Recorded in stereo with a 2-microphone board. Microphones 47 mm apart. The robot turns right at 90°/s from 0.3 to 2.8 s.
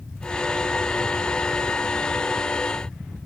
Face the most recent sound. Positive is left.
No sound to turn to.